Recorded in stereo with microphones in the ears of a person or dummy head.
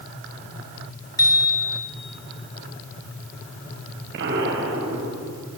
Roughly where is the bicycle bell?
Left.